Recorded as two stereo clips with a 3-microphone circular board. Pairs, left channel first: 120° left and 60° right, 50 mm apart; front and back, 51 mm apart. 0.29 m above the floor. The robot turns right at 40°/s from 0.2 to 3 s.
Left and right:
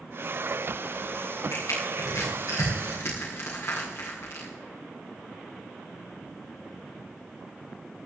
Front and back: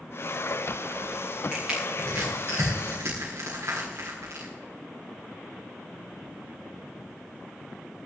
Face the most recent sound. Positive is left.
turn(degrees=160)